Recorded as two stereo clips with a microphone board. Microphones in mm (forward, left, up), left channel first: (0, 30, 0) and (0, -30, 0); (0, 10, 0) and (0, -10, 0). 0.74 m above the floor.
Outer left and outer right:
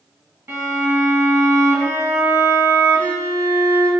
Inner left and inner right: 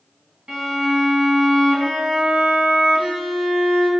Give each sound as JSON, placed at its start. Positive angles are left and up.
{"t": 0.5, "sound": "a violin", "side_deg": -40, "distance_m": 1.5}